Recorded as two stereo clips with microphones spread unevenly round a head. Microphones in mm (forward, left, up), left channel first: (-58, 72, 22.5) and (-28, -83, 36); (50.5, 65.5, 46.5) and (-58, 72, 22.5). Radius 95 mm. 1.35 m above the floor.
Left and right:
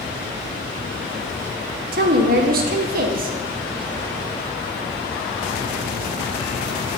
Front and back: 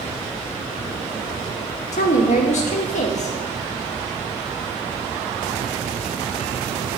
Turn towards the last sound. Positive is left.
turn(degrees=-40)